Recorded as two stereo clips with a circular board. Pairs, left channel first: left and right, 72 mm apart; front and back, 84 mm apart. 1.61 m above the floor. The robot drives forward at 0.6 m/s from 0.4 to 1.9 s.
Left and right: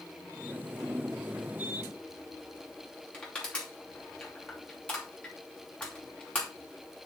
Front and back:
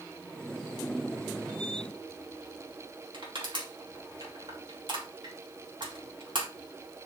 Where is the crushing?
160° left, 4.5 m.